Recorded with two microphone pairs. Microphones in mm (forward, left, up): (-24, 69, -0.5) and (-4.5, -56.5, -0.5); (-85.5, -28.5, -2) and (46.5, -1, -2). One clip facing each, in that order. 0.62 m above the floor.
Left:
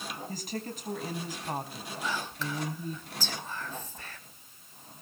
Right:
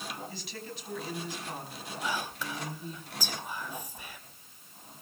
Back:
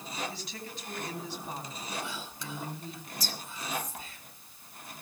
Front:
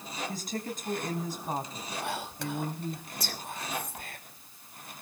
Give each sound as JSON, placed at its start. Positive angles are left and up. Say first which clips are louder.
{"t": 0.3, "sound": "a woman speaking", "louder": "left 5 dB, front 7 dB", "azimuth_deg": 55, "distance_m": 4.0}
{"t": 2.0, "sound": "whispering", "louder": "even, front 6 dB", "azimuth_deg": -5, "distance_m": 2.5}